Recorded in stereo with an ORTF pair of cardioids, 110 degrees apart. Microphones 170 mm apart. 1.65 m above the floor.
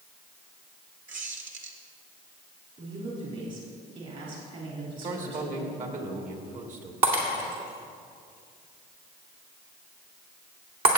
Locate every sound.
1.1 s a squeak: 50° right, 1.9 m
2.8 s a woman speaking: 50° right, 3.5 m
5.0 s a man speaking: 50° right, 2.0 m
7.0 s breaking glass: 65° right, 3 m